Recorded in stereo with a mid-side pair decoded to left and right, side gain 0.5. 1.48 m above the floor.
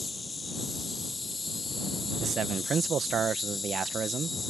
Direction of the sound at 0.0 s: 25° left.